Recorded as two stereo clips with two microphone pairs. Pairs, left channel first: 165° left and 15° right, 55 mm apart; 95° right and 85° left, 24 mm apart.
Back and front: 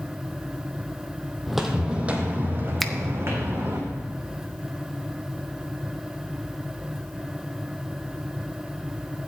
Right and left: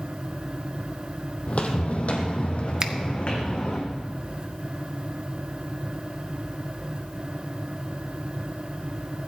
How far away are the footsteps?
About 1.7 m.